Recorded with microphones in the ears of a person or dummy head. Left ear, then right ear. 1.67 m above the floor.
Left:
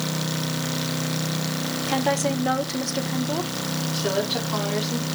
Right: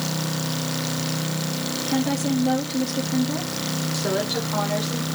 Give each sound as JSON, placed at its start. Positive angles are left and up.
{"t": 1.9, "sound": "a woman speaking", "side_deg": 55, "distance_m": 1.5}
{"t": 3.9, "sound": "a woman speaking", "side_deg": 20, "distance_m": 5.0}